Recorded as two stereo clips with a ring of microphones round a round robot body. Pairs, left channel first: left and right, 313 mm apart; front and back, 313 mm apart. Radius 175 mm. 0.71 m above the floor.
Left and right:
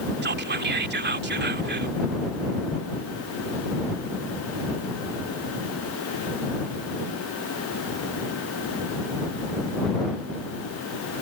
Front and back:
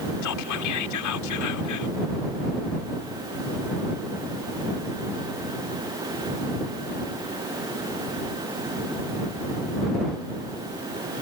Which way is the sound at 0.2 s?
35° right.